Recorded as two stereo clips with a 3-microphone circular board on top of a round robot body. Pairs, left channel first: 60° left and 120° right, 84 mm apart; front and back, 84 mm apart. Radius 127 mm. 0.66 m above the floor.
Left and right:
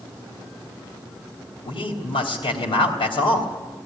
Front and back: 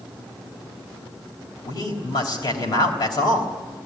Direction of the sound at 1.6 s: 40° left.